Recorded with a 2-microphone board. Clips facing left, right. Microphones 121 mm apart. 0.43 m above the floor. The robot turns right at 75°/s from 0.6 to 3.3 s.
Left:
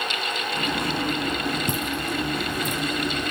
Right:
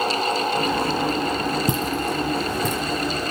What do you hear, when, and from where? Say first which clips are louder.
1.7 s footsteps: right 4 dB; 20° right (ahead or behind), 1.0 m; by 3.0 s 55° right (ahead or behind), 2 m